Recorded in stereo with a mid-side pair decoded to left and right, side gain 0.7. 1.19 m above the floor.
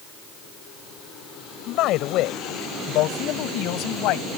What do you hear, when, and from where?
1.7 s a man speaking: 60° left